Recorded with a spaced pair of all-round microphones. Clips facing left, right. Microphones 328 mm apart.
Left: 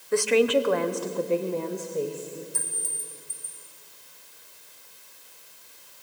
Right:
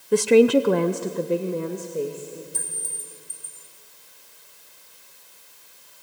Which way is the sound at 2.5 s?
50° right (ahead or behind).